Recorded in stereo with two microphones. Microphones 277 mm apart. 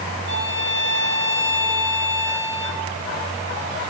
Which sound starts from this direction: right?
A violin, at 0.3 s.